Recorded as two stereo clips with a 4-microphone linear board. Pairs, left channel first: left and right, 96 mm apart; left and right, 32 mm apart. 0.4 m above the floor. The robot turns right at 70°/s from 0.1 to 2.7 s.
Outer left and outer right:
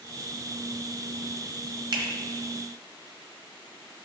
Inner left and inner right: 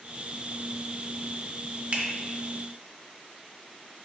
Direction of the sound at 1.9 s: 50° right (ahead or behind).